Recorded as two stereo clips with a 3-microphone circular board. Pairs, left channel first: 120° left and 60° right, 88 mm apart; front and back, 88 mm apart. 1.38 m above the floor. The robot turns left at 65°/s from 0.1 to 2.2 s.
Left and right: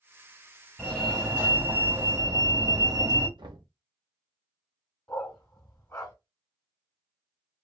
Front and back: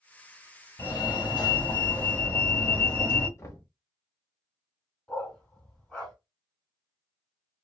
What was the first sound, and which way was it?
A fire alarm, 45° left.